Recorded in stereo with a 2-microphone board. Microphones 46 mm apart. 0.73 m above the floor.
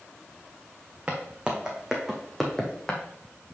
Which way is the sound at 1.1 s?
25° right (ahead or behind).